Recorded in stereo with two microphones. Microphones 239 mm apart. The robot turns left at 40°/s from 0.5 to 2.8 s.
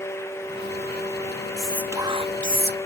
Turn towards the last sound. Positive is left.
turn(degrees=-45)